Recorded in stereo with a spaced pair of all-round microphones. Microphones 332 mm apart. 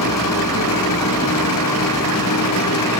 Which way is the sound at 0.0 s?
75° left (ahead or behind).